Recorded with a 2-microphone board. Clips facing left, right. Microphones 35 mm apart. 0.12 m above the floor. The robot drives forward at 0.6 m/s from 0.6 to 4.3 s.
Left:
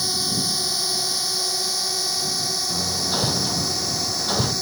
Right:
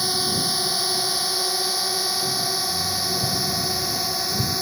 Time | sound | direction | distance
0.0 | a drone | 15° right (ahead or behind) | ?
2.7 | hammering | 70° left (ahead or behind) | ?